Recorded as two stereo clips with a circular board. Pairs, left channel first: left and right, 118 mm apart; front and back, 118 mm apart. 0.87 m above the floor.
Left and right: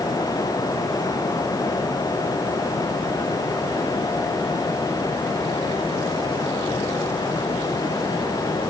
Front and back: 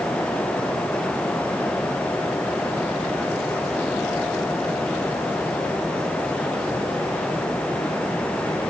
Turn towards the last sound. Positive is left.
No sound to turn to.